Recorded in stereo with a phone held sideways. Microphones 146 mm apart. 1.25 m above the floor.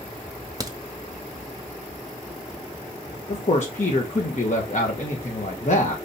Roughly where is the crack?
Right.